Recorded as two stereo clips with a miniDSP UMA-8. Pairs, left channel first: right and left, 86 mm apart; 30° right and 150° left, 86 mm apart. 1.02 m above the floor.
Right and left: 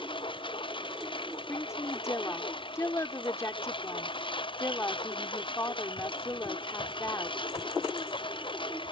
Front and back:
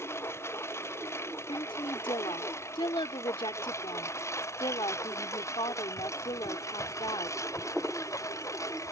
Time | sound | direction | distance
0.0 | a lawn mower | 90° right | ?
1.5 | a woman speaking | 35° right | ?